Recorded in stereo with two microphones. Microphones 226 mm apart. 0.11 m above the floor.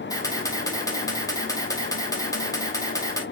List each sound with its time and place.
0.1 s a camera shutter: 15° left (ahead or behind), 2 m